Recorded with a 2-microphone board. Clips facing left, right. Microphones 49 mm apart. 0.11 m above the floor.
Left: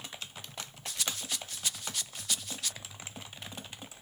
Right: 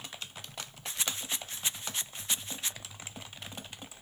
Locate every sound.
0.9 s a rattle: 30° right (ahead or behind)